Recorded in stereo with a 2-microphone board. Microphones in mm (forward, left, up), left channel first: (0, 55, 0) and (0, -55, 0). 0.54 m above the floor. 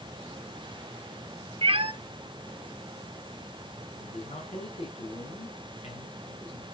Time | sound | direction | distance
1.6 | a cat meowing | 55° right (ahead or behind) | 0.7 m
4.0 | a man speaking | 65° left (ahead or behind) | 5.5 m